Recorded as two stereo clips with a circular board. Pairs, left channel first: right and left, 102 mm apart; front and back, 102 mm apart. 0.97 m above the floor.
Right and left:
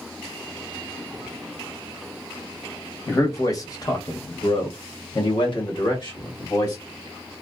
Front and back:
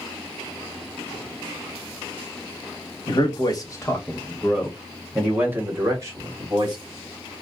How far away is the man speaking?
About 1.2 m.